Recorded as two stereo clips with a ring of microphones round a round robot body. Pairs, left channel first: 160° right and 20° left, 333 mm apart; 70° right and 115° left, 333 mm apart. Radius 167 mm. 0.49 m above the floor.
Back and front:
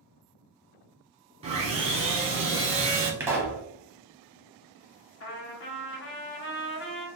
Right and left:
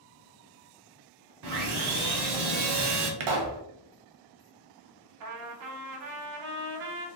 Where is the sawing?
90° left, 0.8 m.